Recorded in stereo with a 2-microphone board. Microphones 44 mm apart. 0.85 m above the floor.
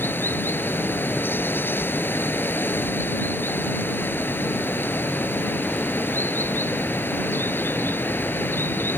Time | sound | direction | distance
0.0 | running water | 50° left (ahead or behind) | ?